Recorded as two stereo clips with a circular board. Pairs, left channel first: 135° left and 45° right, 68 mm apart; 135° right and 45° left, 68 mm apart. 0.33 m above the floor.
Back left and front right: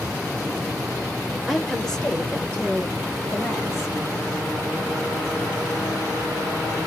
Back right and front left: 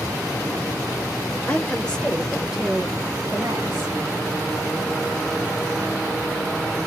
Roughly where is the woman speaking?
Behind right.